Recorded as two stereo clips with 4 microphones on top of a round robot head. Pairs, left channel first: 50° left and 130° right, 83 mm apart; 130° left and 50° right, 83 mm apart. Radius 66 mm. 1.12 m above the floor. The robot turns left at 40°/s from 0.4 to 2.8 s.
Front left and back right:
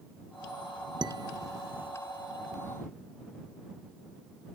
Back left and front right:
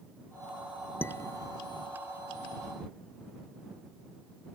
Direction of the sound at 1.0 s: 160° right.